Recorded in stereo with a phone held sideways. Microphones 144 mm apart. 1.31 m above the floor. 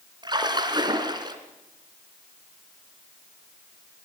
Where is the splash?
35° right (ahead or behind), 2.5 m.